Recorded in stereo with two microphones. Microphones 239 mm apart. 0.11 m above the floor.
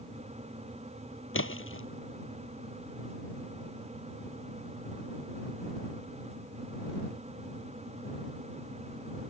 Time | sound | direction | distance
1.3 | a splash | 60° left (ahead or behind) | ?